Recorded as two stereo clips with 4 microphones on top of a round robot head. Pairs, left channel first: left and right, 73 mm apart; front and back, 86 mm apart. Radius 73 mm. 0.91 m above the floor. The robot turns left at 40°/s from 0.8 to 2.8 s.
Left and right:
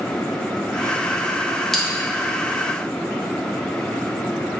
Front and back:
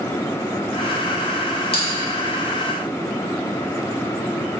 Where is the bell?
5° left, 1.2 m; by 1.9 s straight ahead, 1.2 m.